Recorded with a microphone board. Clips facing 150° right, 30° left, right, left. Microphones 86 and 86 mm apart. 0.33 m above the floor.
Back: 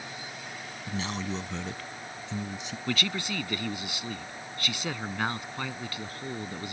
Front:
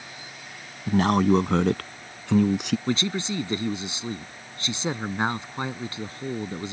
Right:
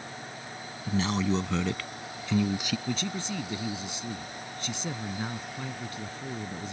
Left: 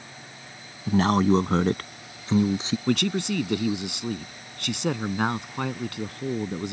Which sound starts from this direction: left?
A man speaking, at 2.9 s.